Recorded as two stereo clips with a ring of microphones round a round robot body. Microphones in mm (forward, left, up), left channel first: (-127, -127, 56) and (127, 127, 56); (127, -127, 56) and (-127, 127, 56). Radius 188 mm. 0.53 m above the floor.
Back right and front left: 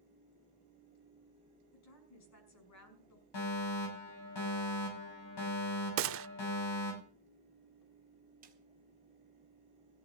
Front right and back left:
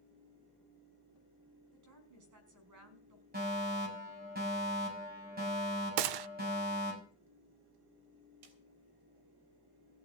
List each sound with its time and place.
1.7 s a woman speaking: straight behind, 5.5 m
3.3 s a fire alarm: 160° right, 7 m
6.0 s a gunshot: 105° left, 0.6 m
8.4 s a snare drum: 115° left, 3.5 m